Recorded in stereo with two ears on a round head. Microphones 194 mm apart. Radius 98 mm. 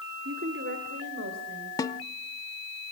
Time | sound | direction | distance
0.2 | a woman speaking | 50° right (ahead or behind) | 1.9 m
1.8 | a snare drum | 15° left (ahead or behind) | 0.8 m